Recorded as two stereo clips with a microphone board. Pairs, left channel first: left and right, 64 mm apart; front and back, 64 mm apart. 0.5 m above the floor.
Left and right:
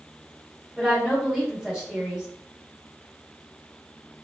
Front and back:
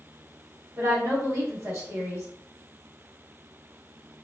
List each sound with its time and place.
0.8 s a woman speaking: 165° right, 1.4 m